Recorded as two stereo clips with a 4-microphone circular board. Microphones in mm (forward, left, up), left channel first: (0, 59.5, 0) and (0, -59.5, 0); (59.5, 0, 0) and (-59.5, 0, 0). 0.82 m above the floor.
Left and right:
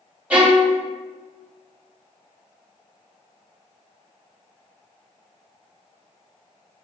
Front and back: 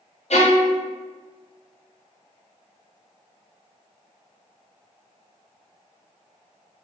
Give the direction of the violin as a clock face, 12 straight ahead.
12 o'clock.